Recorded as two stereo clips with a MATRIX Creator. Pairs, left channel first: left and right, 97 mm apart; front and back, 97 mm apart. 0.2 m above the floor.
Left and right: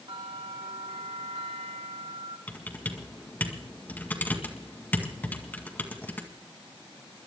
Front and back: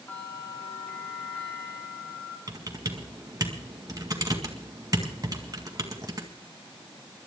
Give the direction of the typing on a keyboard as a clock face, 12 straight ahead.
7 o'clock.